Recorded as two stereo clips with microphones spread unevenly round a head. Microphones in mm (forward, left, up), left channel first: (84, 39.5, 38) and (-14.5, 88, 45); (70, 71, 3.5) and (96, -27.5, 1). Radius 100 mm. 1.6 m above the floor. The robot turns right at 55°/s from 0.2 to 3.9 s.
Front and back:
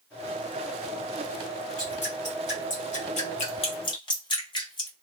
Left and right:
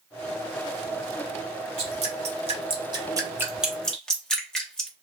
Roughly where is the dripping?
Right.